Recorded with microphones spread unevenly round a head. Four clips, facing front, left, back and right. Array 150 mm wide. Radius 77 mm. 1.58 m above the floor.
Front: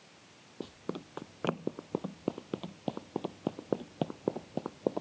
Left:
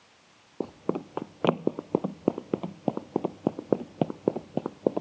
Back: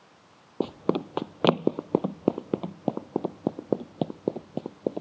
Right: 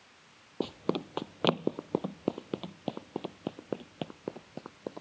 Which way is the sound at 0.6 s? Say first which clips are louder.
Left 1 dB, back 14 dB; 170° left.